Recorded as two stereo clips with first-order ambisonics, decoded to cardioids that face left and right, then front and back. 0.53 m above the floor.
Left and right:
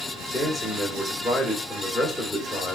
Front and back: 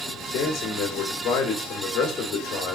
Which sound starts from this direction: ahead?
A man speaking, at 0.3 s.